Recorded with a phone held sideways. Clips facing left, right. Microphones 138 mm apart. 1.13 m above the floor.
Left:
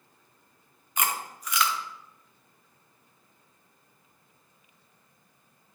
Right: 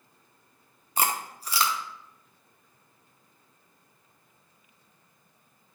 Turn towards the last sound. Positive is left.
turn(degrees=-35)  # may be behind; listen again after turning